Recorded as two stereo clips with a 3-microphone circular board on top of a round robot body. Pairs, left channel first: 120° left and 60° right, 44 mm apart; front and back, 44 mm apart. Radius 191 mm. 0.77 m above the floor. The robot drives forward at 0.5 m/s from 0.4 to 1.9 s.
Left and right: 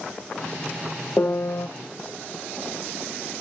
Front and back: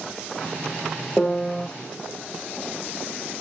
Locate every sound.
1.2 s a piano: 75° left, 0.6 m; by 1.7 s 100° left, 0.6 m